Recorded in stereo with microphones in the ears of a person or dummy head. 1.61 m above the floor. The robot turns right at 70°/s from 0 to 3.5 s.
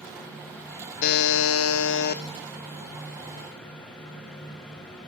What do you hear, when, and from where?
1.0 s a buzzer: 50° left, 1.0 m; by 2.2 s 135° left, 1.0 m